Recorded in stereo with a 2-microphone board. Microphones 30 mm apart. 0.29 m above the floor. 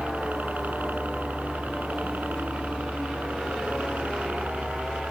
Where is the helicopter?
65° right (ahead or behind).